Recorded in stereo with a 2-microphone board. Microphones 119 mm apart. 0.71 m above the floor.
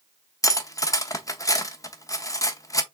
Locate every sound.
0.4 s cutlery clinking: 30° left (ahead or behind), 0.6 m